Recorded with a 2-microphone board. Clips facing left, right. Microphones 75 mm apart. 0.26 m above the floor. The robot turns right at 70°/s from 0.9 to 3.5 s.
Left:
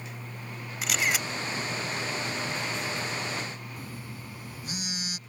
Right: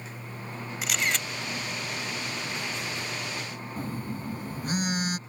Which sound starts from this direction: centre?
A camera shutter, at 0.8 s.